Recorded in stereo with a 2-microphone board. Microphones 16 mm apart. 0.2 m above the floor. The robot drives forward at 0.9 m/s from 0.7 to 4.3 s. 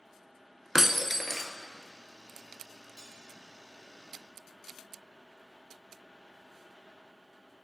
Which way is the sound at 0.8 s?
30° right (ahead or behind).